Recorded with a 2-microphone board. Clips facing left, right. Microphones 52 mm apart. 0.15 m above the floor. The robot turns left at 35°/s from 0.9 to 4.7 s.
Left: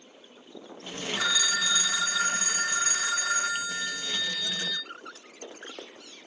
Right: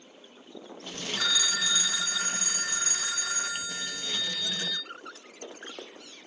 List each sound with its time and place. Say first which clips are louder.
1.2 s a phone ringing: left 2 dB; 155° left, 0.8 m; by 4.8 s 30° left, 0.8 m